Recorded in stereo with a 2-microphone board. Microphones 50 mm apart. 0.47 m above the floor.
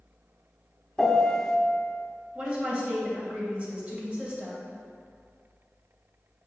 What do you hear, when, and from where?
1.0 s a piano: 10° left (ahead or behind), 0.9 m
2.4 s a woman speaking: 30° right (ahead or behind), 2.5 m